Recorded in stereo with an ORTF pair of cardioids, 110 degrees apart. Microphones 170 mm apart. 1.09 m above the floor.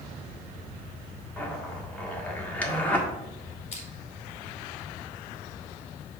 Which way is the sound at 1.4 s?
10° left.